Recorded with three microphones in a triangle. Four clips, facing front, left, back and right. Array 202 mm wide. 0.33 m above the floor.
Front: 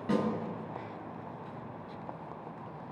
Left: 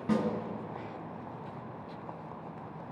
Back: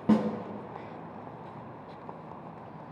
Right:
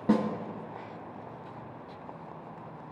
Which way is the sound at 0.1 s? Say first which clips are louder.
Right 4 dB, back 5 dB; 140° right.